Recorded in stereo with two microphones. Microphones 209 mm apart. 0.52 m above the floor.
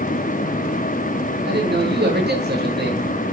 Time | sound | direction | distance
1.4 | a man speaking | 55° right (ahead or behind) | 9 m